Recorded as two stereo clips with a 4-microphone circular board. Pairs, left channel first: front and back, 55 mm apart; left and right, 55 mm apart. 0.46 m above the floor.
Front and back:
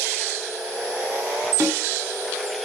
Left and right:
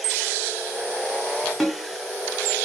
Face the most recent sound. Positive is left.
turn(degrees=170)